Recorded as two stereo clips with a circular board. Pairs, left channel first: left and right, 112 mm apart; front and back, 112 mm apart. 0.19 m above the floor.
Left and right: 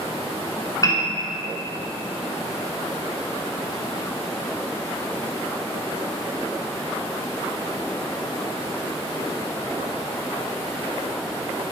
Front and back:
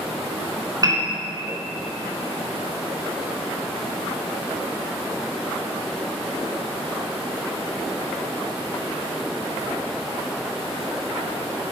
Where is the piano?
135° left, 2.5 m.